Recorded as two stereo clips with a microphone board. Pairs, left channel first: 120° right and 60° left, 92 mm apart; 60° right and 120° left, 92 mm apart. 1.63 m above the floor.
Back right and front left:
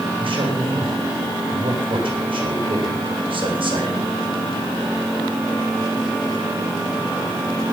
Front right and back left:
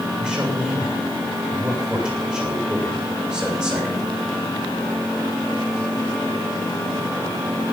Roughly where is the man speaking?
Ahead left.